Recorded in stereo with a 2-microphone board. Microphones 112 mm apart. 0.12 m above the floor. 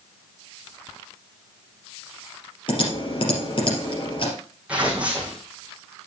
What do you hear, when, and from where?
2.7 s typing on a keyboard: 50° left (ahead or behind), 3.5 m
4.7 s tearing paper: 10° right (ahead or behind), 3 m